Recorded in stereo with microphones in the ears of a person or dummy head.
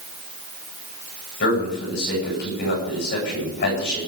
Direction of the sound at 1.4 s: 55° left (ahead or behind).